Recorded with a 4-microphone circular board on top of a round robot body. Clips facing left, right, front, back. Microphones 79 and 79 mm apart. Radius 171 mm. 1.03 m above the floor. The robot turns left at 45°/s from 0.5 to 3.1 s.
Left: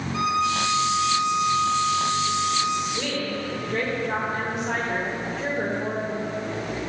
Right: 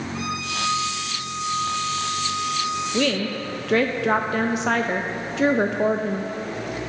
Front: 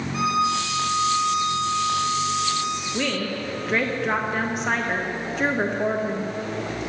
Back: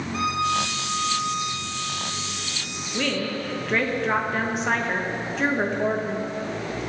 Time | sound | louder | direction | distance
0.1 | a violin | left 9 dB, front 2 dB | 90° left | 4.5 m
2.9 | a woman speaking | right 5 dB, back 5 dB | 80° right | 0.8 m